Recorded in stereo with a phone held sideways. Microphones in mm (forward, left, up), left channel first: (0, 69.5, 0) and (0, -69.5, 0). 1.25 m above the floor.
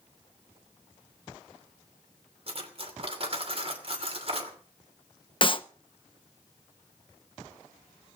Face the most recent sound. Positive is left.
turn(degrees=40)  # may be behind; listen again after turning